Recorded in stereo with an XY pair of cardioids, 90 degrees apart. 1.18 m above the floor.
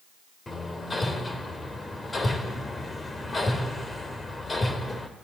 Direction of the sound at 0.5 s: 25° left.